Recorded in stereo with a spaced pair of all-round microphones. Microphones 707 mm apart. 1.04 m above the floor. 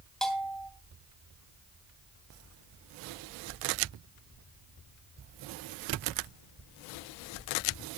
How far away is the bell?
About 3 m.